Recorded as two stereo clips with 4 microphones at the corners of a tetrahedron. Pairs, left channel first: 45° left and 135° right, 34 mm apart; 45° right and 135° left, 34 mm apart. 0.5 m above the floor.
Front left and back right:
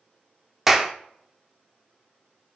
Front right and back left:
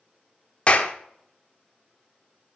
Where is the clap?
60° right, 0.9 m.